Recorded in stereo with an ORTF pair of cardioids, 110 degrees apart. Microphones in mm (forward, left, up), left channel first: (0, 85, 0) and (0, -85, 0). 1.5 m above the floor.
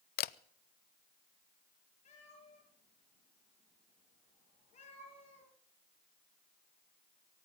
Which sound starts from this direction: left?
A camera shutter, at 0.2 s.